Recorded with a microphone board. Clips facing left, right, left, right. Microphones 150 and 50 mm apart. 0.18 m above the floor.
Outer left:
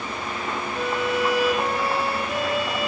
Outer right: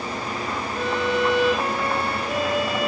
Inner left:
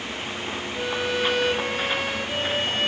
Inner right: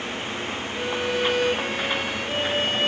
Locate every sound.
0.8 s a violin: centre (ahead or behind), 1.1 m